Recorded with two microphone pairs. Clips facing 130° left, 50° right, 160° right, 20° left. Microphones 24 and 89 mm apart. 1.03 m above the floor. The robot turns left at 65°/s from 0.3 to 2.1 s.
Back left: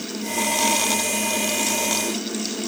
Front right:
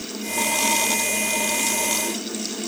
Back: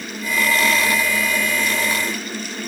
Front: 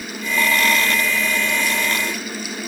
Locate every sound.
Only background noise.